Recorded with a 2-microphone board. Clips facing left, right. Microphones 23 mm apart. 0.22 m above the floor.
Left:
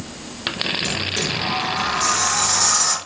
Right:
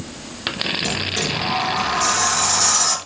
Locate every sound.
0.8 s a sliding door: centre (ahead or behind), 2 m